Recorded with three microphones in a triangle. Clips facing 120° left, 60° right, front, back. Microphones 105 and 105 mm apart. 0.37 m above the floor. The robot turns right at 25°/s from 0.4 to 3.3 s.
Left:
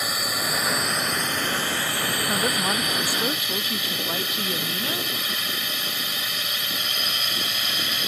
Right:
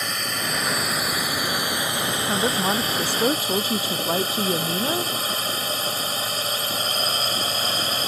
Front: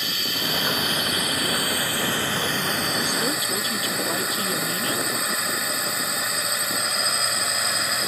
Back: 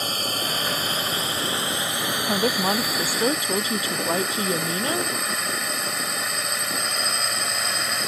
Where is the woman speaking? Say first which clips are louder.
Right 3 dB, back 4 dB; 145° right; by 5.1 s 120° right.